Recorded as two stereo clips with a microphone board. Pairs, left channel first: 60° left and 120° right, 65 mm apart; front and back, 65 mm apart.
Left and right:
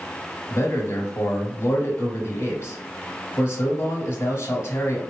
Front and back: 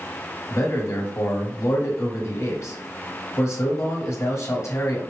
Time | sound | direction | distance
0.5 | a man speaking | 30° left | 1.7 m